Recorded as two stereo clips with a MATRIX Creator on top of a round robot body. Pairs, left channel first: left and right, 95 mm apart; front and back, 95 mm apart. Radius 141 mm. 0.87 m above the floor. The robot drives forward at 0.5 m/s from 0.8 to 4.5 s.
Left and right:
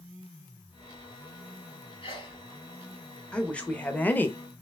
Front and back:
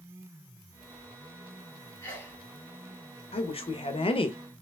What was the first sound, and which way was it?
A sneeze, 55° left.